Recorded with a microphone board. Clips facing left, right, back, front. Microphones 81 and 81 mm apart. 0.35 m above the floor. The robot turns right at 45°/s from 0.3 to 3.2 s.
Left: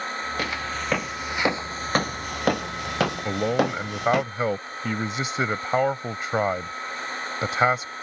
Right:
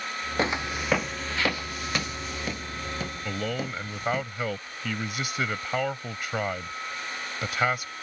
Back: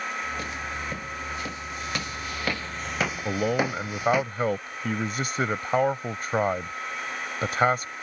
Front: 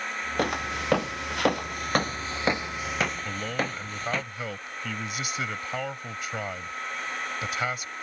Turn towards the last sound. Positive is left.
turn(degrees=145)